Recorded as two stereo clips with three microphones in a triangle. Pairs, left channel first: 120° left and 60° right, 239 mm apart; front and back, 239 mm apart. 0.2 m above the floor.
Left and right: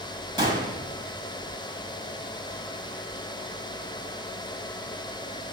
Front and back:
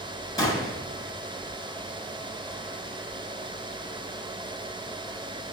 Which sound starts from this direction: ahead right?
A gunshot, at 0.4 s.